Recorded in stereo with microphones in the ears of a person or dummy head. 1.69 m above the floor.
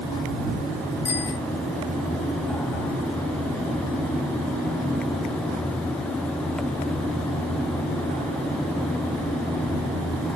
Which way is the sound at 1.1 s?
15° left (ahead or behind).